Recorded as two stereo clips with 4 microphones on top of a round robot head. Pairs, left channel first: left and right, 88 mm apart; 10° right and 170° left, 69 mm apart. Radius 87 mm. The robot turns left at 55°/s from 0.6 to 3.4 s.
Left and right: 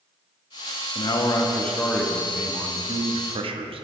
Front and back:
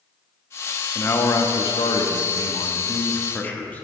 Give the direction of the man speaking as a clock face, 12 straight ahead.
10 o'clock.